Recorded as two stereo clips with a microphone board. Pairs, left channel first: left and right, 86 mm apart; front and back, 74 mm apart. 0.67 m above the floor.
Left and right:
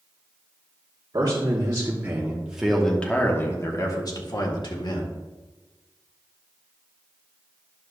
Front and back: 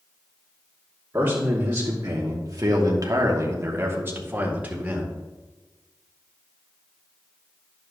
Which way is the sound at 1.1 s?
130° right.